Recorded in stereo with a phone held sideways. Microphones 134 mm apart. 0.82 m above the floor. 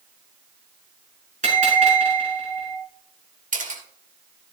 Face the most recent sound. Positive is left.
turn(degrees=-75)  # may be behind; listen again after turning